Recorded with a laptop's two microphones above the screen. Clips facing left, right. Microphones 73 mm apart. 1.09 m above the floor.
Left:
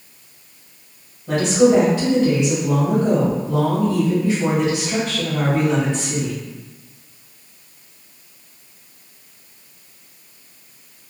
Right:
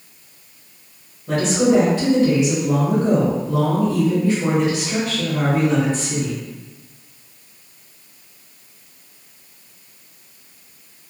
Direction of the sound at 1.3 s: 10° left (ahead or behind).